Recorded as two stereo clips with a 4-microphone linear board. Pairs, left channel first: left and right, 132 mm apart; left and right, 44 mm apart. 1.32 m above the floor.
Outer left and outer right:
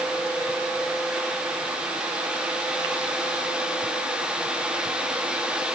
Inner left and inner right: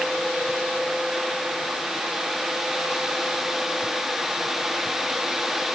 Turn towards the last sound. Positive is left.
No sound to turn to.